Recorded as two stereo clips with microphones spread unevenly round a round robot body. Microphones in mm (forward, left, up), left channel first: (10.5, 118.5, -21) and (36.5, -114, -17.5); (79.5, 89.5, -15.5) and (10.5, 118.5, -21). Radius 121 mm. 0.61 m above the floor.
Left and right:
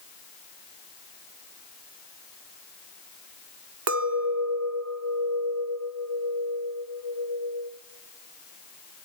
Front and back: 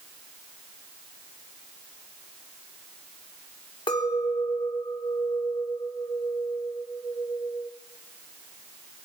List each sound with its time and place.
3.9 s a clink: 60° right, 1.0 m